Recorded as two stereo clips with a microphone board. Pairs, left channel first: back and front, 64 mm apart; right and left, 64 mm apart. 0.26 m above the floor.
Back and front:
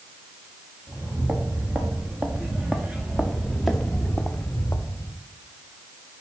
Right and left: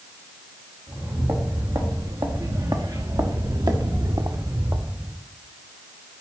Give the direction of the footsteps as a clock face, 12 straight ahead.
10 o'clock.